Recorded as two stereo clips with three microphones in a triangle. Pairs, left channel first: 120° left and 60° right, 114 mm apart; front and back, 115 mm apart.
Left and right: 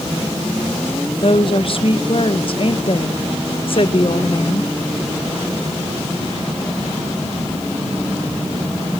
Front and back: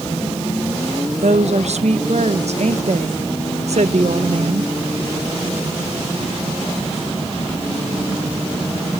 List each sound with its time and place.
1.2 s a woman speaking: 160° left, 1.7 m